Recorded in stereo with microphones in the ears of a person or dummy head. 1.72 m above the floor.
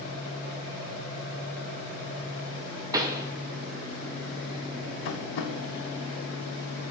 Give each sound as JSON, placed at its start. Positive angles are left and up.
{"t": 2.9, "sound": "a pop", "side_deg": -25, "distance_m": 0.9}
{"t": 5.0, "sound": "tapping", "side_deg": 60, "distance_m": 1.0}